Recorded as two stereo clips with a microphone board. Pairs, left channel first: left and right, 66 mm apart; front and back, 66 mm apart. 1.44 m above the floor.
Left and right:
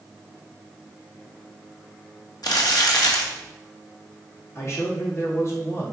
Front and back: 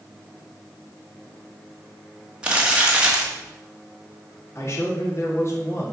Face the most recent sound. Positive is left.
turn(degrees=45)